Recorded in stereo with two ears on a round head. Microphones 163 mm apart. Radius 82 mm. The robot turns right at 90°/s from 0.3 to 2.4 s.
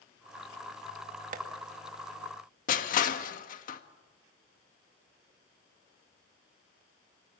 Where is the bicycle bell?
I don't hear a bicycle bell.